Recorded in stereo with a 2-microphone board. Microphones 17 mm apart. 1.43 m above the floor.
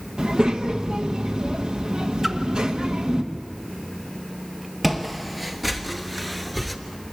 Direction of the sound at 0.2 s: 70° right (ahead or behind).